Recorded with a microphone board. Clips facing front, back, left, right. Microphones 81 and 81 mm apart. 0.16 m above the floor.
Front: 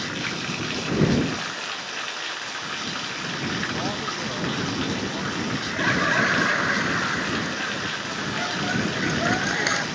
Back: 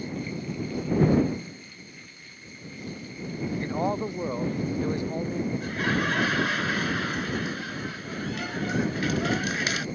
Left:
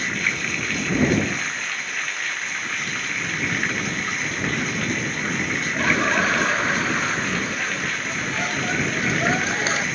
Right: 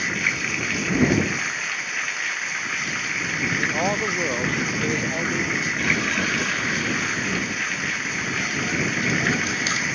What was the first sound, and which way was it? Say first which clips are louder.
Running water: front 3 dB, even; 5° right.